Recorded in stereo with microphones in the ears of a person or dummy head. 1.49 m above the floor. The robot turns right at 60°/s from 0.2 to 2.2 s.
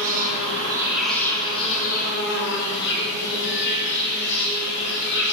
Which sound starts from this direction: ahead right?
An insect, at 0.0 s.